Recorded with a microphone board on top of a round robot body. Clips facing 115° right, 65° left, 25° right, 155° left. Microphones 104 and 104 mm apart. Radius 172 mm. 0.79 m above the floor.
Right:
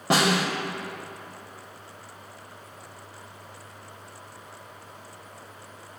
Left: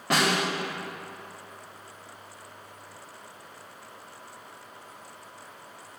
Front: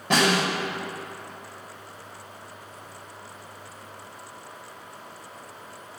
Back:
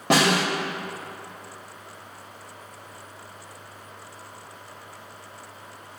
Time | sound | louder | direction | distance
0.1 | a snare drum | right 3 dB, back 2 dB | 175° right | 0.6 m